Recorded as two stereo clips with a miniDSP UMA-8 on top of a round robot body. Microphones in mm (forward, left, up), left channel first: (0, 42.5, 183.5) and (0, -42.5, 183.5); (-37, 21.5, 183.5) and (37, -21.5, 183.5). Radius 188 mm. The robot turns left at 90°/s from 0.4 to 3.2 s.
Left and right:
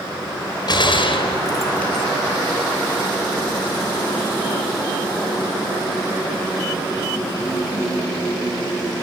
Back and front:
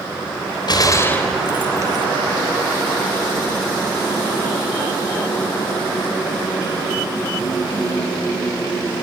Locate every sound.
0.7 s a gunshot: 120° left, 3 m; by 2.0 s straight ahead, 3 m